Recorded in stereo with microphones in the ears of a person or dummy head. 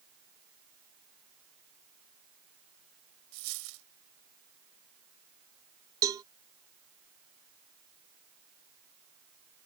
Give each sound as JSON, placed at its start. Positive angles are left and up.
{"t": 3.3, "sound": "a dropped coin", "side_deg": -75}
{"t": 6.0, "sound": "a cowbell", "side_deg": -15}